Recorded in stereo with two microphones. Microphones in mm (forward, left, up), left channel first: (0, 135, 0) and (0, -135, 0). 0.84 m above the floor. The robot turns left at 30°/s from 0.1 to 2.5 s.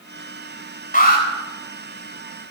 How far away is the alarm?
About 4 m.